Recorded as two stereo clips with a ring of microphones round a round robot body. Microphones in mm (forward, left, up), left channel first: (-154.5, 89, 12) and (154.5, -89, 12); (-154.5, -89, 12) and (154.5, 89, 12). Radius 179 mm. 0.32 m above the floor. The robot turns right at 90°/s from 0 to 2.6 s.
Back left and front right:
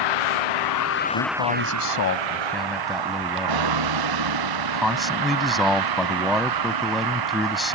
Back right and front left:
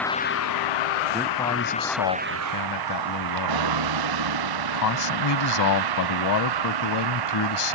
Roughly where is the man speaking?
Left.